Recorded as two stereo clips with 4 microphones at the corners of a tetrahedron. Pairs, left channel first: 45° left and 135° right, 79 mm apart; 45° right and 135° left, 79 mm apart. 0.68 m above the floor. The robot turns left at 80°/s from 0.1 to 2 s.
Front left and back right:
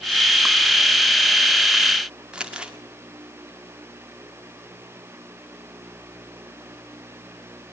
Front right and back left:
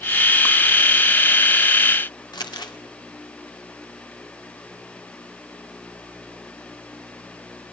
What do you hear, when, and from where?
2.3 s crumpling: 60° right, 1.7 m